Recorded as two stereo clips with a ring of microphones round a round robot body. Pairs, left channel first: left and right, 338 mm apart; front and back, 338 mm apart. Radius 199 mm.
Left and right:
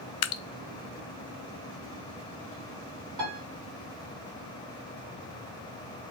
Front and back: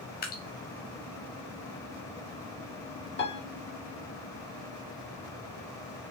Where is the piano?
60° right, 2.5 m.